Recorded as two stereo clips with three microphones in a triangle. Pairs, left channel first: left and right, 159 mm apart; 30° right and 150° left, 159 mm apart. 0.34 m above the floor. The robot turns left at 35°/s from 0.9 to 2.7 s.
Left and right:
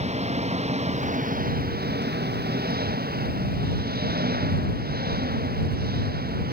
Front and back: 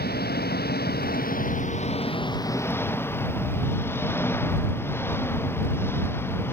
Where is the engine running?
45° right; by 6.5 s 105° right.